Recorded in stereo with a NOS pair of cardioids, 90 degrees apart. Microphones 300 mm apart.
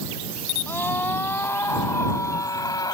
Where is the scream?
5° left; by 2.9 s 10° left.